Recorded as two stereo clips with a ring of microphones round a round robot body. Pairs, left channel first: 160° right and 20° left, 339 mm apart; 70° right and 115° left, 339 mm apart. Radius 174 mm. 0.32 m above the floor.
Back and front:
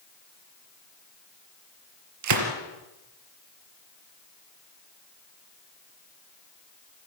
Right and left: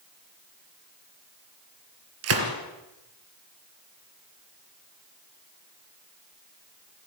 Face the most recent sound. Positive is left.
turn(degrees=65)